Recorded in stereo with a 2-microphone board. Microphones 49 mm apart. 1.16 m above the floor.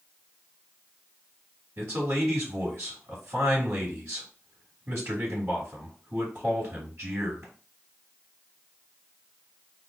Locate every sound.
1.8 s a man speaking: 80° right, 2.5 m